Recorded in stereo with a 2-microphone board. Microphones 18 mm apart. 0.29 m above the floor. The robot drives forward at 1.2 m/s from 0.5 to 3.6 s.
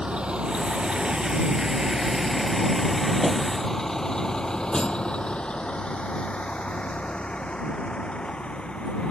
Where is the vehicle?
75° right (ahead or behind); by 9.1 s 80° left.